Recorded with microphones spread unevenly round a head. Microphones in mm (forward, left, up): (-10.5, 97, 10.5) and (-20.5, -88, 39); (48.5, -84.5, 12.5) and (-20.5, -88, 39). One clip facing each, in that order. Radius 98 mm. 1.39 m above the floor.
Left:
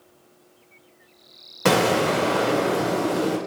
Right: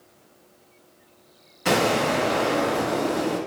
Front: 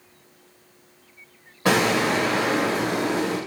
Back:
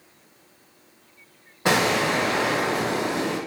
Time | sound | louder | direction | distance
1.6 | an explosion | left 2 dB, front 1 dB | 100° left | 0.9 m